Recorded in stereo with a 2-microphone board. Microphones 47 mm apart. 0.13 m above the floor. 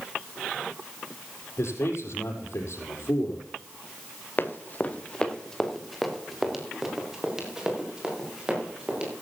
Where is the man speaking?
70° left (ahead or behind), 4.5 m.